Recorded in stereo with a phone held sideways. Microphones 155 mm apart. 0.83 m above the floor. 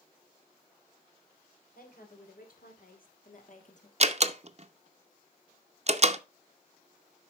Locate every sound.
1.8 s a woman speaking: 75° left (ahead or behind), 3.5 m; by 3.9 s 50° left (ahead or behind), 1.6 m
4.0 s a door slam: 45° right (ahead or behind), 0.6 m